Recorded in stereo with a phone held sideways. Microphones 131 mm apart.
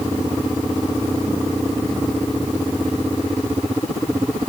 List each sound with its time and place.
Only background noise.